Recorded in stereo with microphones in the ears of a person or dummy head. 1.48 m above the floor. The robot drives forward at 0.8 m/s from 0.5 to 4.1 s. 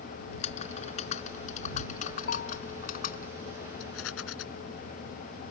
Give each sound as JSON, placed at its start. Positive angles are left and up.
{"t": 0.3, "sound": "typing on a keyboard", "side_deg": 40}
{"t": 2.3, "sound": "a bell", "side_deg": 60}
{"t": 3.8, "sound": "a rattle", "side_deg": 85}